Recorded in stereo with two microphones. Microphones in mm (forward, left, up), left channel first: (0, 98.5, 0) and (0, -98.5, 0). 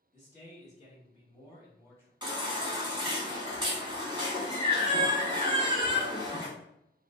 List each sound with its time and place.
0.1 s a man speaking: 40° left (ahead or behind), 1.5 m; by 2.1 s 10° left (ahead or behind), 1.2 m
2.2 s a baby crying: 25° right (ahead or behind), 0.9 m